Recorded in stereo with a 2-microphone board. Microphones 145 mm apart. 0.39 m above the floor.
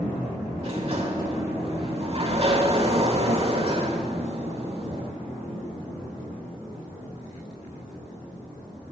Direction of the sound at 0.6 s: 40° right (ahead or behind).